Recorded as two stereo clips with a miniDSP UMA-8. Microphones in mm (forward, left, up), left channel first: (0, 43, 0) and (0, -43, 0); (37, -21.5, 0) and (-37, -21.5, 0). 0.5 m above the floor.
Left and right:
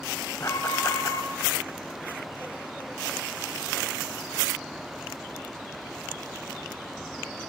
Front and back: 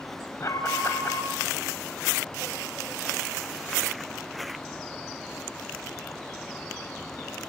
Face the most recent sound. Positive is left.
turn(degrees=40)